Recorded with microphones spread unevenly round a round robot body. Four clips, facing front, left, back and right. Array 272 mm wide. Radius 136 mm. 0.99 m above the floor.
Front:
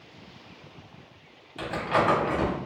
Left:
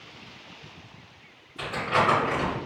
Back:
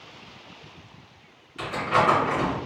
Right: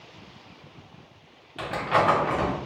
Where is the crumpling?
85° right, 1.5 m.